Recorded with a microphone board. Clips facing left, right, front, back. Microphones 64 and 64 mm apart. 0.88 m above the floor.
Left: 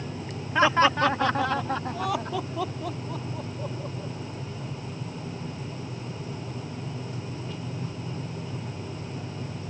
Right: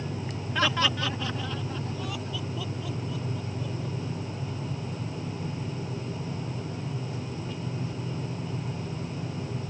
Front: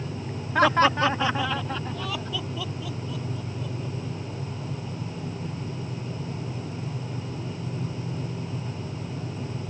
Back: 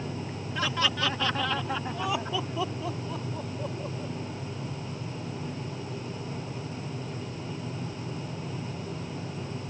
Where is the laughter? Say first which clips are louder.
Left 7 dB, front 10 dB; 25° left; by 4.1 s 135° left.